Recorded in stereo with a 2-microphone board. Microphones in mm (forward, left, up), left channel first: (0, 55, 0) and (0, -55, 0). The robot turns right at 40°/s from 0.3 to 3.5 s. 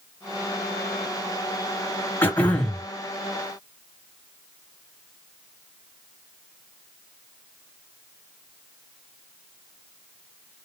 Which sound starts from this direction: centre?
Throat clearing, at 2.2 s.